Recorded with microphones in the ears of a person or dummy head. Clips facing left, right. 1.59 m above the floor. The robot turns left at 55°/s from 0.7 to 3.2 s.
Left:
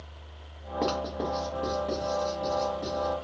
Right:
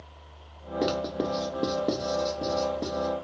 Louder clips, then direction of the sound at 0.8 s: Right 2 dB; 15° right (ahead or behind).